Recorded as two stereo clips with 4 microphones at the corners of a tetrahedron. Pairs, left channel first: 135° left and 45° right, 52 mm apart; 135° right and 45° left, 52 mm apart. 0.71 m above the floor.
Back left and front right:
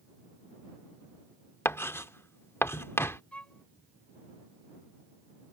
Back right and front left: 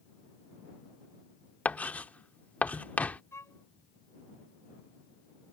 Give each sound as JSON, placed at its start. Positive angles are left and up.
{"t": 1.6, "sound": "writing", "azimuth_deg": 165}
{"t": 3.3, "sound": "a violin", "azimuth_deg": -160}